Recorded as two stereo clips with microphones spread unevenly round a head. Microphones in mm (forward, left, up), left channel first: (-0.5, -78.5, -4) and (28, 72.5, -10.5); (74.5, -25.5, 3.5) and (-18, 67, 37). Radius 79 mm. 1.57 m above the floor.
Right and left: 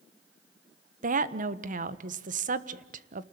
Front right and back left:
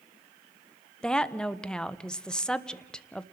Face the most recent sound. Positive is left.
turn(degrees=40)